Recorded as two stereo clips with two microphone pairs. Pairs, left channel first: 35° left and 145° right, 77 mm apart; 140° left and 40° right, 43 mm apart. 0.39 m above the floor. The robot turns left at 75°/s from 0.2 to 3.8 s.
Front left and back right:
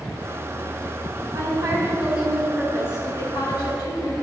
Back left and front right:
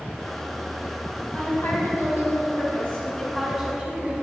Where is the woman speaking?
160° right, 3 m; by 4.1 s 15° left, 3 m.